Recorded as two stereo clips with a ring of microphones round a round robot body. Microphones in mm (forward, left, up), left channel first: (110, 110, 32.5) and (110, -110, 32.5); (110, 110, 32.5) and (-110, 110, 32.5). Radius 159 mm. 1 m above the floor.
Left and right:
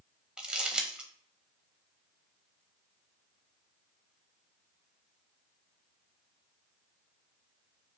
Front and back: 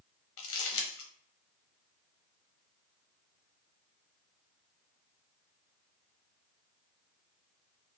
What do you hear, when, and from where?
0.4 s crumpling: 5° right, 0.7 m